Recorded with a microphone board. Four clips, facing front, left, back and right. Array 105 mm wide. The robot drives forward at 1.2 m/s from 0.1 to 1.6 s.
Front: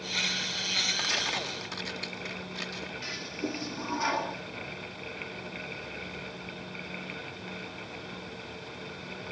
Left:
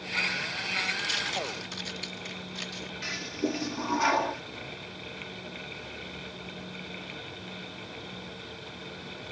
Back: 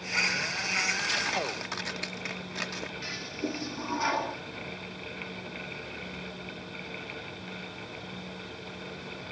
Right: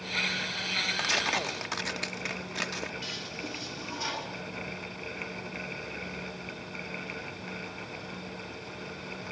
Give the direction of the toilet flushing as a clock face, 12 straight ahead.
9 o'clock.